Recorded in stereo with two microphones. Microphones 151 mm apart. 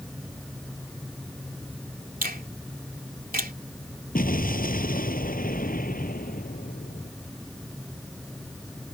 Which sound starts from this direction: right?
A finger snap, at 2.2 s.